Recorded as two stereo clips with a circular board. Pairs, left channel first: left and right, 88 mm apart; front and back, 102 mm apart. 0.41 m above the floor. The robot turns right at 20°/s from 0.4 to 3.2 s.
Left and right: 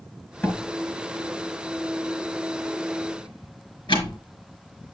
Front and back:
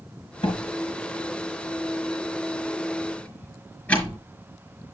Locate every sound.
0.4 s a door slam: 20° left, 4.5 m; by 4.2 s 75° left, 4.5 m